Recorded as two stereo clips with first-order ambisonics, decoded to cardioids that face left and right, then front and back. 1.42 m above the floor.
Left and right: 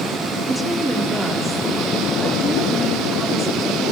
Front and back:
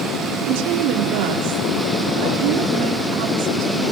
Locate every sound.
0.5 s a woman speaking: straight behind, 4.5 m